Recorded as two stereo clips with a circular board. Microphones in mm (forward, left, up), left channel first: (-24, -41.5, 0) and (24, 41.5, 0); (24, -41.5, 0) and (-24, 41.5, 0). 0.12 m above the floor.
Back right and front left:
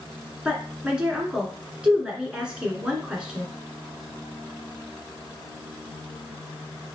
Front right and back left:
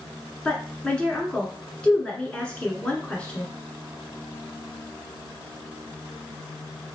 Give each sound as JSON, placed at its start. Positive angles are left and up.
{"t": 0.5, "sound": "a woman speaking", "azimuth_deg": -5, "distance_m": 1.2}